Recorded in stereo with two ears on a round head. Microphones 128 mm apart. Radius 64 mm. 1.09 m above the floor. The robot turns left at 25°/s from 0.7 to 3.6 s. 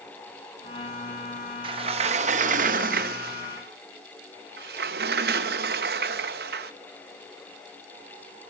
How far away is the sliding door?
About 0.6 m.